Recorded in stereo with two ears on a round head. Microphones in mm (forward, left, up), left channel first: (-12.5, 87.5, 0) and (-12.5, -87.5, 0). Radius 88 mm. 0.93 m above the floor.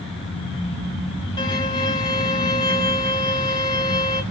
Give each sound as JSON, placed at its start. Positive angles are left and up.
{"t": 1.4, "sound": "a violin", "side_deg": 25, "distance_m": 2.5}